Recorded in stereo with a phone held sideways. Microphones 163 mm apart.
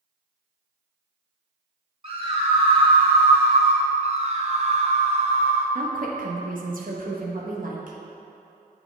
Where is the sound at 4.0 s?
40° right (ahead or behind), 0.8 m.